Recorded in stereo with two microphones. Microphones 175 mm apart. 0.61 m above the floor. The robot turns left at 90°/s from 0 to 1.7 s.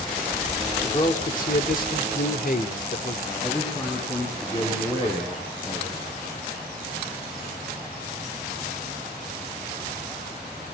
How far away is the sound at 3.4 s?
About 9.5 m.